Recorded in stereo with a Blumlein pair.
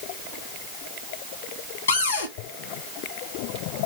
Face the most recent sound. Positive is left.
turn(degrees=65)